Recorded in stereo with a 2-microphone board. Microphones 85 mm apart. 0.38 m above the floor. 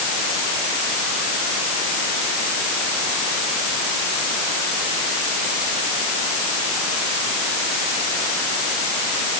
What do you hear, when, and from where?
Only background noise.